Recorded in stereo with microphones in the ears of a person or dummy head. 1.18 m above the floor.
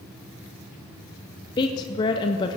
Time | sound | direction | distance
1.6 | a woman speaking | 25° left (ahead or behind) | 0.5 m